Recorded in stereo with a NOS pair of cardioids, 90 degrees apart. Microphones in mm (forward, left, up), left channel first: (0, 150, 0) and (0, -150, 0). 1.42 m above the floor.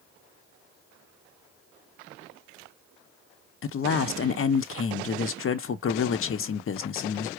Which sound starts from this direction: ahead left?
A man speaking, at 3.6 s.